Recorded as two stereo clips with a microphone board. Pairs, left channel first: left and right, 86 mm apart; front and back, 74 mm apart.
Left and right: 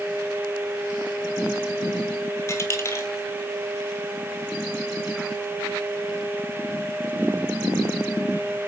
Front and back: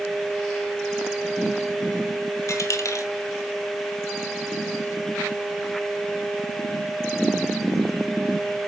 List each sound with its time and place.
2.5 s a dropped coin: 35° left, 0.9 m